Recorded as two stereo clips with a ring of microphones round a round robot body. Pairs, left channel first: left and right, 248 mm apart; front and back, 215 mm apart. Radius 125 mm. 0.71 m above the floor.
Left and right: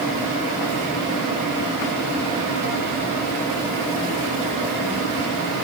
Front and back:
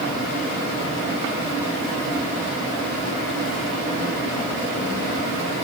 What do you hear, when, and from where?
Only background noise.